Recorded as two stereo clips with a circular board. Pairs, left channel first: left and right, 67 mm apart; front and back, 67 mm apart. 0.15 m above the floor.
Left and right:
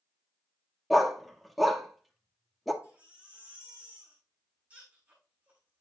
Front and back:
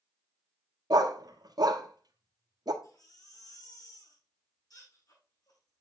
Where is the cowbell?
No cowbell in this recording.